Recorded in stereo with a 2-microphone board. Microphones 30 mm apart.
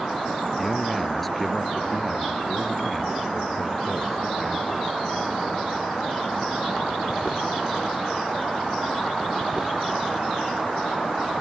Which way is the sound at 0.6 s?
5° left (ahead or behind).